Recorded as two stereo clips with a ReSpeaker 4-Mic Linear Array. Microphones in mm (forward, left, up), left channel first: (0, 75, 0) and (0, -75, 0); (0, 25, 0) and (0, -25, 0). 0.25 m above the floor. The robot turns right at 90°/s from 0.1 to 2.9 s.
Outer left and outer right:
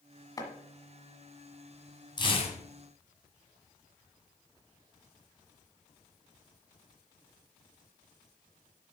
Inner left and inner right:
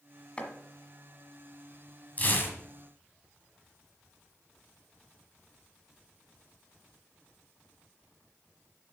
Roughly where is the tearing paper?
Ahead left.